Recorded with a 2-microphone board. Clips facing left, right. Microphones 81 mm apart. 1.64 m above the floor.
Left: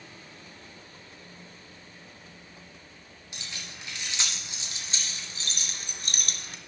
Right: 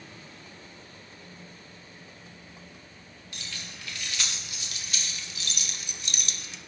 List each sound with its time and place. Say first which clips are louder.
3.3 s keys jangling: even; 20° left (ahead or behind), 2.5 m; by 6.6 s 50° left (ahead or behind), 1.0 m